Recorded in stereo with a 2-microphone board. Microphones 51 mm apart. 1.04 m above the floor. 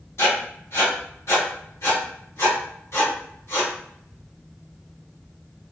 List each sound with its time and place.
0.2 s writing: 70° left (ahead or behind), 1.1 m